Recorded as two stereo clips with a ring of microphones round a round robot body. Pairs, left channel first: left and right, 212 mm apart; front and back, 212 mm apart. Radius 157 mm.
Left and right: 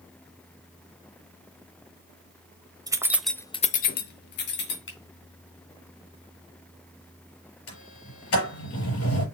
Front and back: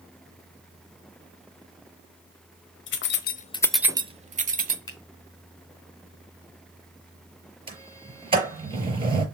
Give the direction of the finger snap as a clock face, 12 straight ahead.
10 o'clock.